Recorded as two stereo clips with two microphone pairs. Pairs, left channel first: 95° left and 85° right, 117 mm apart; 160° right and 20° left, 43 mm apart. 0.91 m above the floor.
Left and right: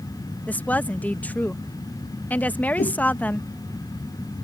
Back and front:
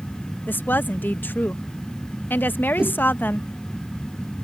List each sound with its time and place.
0.5 s a woman speaking: 175° left
2.8 s a whoosh: 90° left